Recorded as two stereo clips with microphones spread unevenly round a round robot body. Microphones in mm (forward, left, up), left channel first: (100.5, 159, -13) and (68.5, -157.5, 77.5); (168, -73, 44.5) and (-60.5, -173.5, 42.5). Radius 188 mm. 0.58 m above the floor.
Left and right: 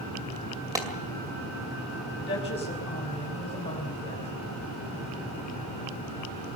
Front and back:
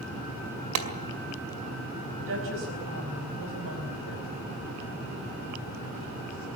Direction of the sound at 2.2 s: 155° left.